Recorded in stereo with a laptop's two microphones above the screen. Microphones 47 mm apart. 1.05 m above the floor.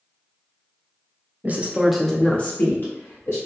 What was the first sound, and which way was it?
A woman speaking, 40° right (ahead or behind).